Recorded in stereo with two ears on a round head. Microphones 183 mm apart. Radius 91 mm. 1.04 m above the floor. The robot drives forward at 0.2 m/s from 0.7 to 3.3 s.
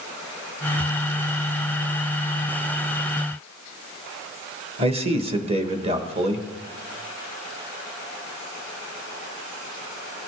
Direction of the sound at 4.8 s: 30° right (ahead or behind).